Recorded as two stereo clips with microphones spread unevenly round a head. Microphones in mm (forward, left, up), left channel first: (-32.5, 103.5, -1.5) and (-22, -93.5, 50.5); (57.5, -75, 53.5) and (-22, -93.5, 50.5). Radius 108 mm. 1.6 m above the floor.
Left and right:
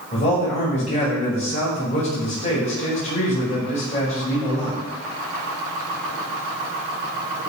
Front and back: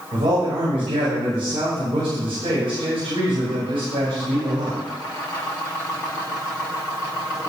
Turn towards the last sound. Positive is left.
turn(degrees=155)